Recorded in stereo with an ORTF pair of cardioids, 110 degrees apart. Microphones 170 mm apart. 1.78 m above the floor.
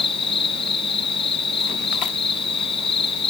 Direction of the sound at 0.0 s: 35° left.